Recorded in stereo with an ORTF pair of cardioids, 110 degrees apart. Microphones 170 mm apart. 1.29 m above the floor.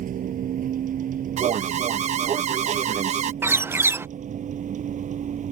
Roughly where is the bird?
Ahead.